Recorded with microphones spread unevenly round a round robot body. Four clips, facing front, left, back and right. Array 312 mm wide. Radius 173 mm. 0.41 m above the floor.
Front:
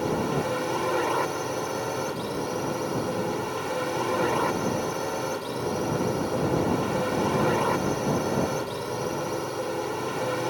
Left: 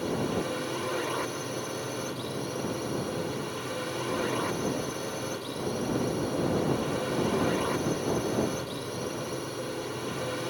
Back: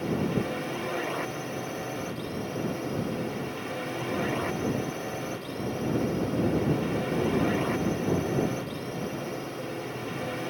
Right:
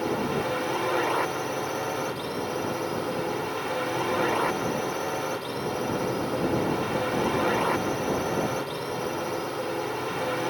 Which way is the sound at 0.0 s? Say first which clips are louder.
Right 3 dB, front 2 dB; 35° right.